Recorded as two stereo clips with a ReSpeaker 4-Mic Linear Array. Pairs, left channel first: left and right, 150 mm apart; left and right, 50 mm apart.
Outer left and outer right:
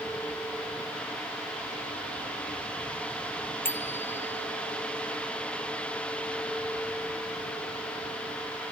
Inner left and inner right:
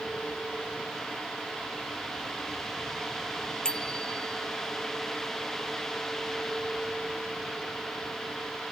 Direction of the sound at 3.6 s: 15° left (ahead or behind).